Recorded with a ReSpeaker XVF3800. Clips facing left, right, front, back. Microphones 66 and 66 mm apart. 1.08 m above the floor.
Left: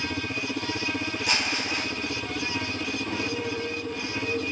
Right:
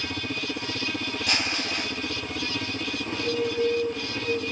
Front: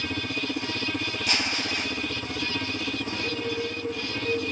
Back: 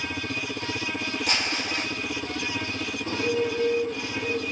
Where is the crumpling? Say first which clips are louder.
Even, front 1 dB; 170° left, 1.5 m.